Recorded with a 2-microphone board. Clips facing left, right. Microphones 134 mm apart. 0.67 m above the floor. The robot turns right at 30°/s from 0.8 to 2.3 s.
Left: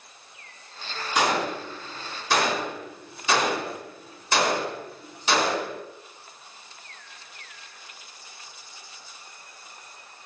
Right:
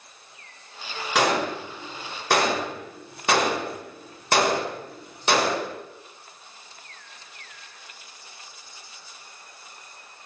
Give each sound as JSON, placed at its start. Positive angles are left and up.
{"t": 1.1, "sound": "a gunshot", "side_deg": -85, "distance_m": 1.0}